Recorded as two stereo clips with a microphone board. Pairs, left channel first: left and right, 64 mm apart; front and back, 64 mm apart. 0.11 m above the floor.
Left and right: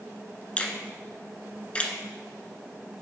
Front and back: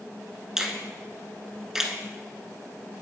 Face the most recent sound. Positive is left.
turn(degrees=115)